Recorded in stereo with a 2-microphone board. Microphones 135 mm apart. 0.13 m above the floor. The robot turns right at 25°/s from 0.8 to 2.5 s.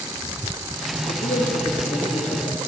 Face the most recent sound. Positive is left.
turn(degrees=120)